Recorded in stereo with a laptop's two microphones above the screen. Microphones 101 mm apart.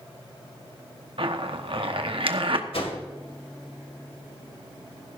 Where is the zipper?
60° right (ahead or behind), 1.1 m.